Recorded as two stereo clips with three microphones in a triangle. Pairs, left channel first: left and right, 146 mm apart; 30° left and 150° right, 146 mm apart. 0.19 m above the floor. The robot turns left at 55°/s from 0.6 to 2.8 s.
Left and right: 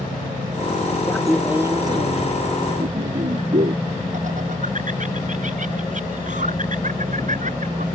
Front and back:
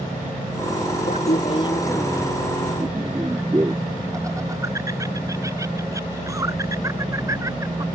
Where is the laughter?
10° left; by 7.8 s 85° right.